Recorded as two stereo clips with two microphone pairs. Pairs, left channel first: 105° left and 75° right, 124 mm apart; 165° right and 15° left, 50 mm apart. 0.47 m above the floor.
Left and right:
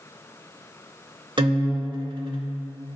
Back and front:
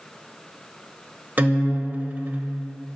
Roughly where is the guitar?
Ahead right.